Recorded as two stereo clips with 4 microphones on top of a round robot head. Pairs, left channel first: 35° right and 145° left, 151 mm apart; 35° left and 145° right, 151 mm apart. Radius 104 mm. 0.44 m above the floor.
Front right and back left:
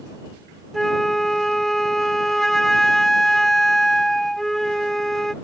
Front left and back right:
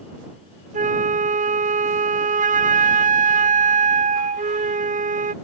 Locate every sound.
0.7 s a flute: 125° right